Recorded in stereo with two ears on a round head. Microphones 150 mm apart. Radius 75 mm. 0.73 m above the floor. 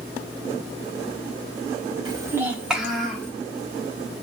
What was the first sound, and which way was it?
A child speaking, 25° right (ahead or behind).